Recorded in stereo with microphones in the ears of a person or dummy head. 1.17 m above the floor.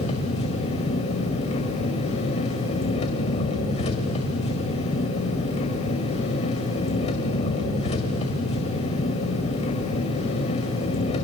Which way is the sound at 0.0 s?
35° left (ahead or behind).